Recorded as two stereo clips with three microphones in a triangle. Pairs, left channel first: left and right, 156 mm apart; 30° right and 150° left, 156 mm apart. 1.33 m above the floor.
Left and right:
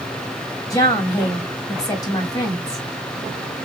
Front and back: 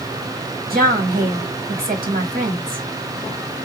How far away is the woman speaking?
About 1.9 m.